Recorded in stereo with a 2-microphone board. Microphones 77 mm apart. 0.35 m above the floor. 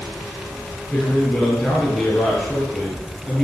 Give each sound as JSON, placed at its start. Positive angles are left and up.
{"t": 0.9, "sound": "a man speaking", "side_deg": 10, "distance_m": 5.5}